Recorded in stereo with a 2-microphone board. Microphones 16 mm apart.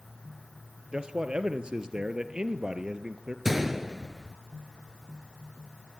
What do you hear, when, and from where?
0.9 s a man speaking: 55° right (ahead or behind), 2.5 m; by 3.4 s 35° right (ahead or behind), 3 m
3.5 s a gunshot: 5° right (ahead or behind), 1.3 m